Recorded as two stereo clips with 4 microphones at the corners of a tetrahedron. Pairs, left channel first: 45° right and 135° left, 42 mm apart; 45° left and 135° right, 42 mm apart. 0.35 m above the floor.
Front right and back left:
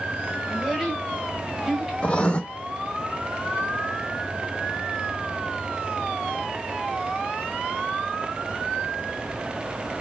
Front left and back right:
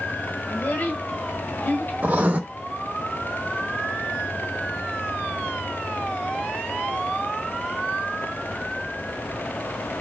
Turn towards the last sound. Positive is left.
turn(degrees=-100)